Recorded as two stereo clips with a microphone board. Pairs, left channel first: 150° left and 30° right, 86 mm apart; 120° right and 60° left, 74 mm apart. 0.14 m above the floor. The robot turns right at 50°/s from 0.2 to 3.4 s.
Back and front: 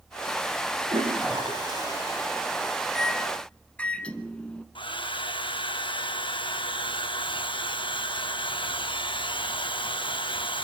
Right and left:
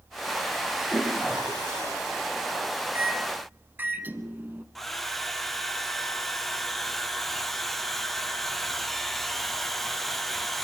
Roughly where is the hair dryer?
Behind left.